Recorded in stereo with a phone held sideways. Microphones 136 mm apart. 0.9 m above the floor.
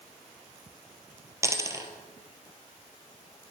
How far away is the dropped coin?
About 1.3 m.